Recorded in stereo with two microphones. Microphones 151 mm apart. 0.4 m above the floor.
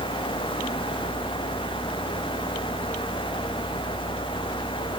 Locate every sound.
Only background noise.